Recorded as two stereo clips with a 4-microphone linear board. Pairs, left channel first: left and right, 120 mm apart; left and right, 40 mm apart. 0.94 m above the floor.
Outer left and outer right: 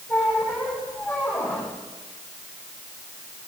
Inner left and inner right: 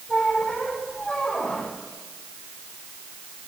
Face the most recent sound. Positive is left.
turn(degrees=20)  # may be behind; listen again after turning